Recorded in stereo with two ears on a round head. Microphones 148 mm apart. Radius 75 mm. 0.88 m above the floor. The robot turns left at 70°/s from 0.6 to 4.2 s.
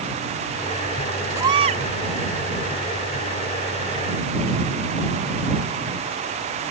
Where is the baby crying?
15° right; by 1.8 s 50° right.